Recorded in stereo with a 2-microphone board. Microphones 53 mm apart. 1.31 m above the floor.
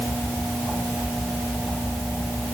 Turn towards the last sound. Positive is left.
No sound to turn to.